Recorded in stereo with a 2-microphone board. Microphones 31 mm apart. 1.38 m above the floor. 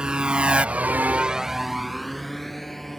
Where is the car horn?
No car horn in this recording.